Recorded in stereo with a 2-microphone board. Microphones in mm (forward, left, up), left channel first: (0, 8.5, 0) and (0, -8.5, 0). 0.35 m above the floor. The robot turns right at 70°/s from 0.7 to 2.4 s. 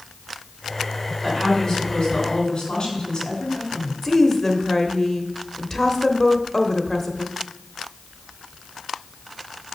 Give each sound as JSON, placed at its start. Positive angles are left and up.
{"t": 1.2, "sound": "a woman speaking", "azimuth_deg": 20, "distance_m": 3.0}
{"t": 4.0, "sound": "a woman speaking", "side_deg": 20, "distance_m": 1.0}